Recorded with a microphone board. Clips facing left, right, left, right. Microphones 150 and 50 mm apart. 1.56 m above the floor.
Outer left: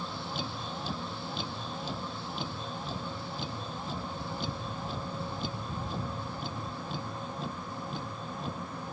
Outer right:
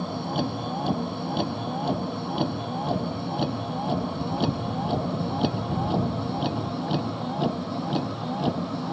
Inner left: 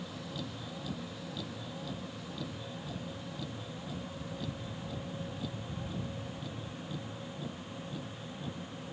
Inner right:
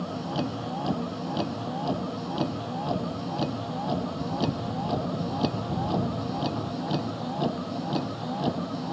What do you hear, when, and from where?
0.0 s a vehicle: 60° right (ahead or behind); by 8.9 s 80° right